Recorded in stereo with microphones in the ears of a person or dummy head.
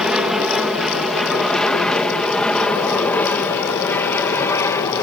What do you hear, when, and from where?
0.0 s an aircraft: centre (ahead or behind); by 5.0 s 15° left (ahead or behind)